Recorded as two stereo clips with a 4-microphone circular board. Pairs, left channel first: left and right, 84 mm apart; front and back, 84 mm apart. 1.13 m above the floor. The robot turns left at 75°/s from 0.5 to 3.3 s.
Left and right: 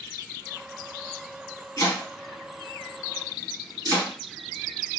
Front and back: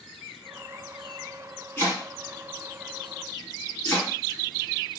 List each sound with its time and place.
1.8 s chopping: 60° left, 1.8 m; by 5.0 s 60° right, 1.8 m